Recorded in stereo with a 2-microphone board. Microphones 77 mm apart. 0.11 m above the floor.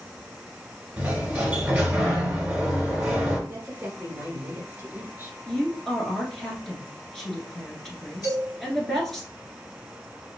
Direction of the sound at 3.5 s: 20° right (ahead or behind).